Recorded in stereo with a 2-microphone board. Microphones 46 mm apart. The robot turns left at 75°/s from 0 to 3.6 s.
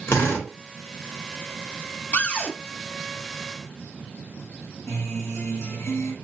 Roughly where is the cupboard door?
Ahead left.